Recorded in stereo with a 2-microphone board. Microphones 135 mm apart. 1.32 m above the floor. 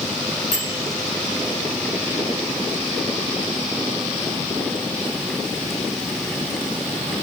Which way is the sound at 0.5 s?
65° right (ahead or behind).